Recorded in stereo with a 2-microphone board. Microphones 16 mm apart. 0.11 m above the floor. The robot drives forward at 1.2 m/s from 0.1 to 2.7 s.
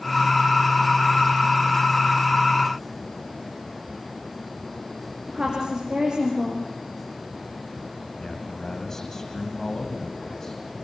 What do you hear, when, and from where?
5.3 s a woman speaking: 55° right (ahead or behind), 5.5 m
8.2 s a man speaking: 25° left (ahead or behind), 5.5 m